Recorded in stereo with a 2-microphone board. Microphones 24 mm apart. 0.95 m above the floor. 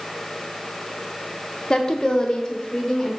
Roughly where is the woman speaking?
Left.